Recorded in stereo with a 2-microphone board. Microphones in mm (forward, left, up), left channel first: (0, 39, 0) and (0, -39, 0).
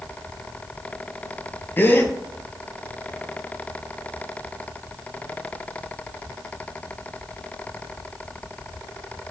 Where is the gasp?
25° left (ahead or behind), 0.5 m.